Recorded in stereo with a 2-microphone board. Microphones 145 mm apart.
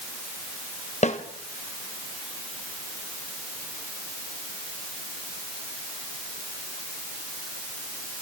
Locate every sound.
1.0 s a snare drum: 50° left (ahead or behind), 2.5 m